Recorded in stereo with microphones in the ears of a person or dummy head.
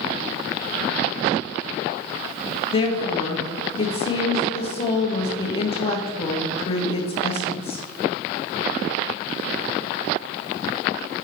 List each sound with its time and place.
2.7 s a woman speaking: 30° left (ahead or behind), 0.9 m